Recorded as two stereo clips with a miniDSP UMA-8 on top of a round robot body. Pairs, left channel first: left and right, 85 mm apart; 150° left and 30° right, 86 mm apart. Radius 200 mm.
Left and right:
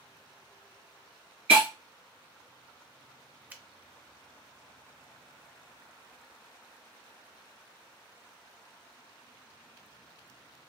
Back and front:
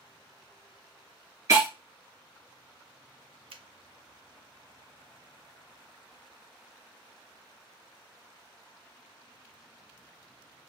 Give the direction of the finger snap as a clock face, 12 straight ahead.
1 o'clock.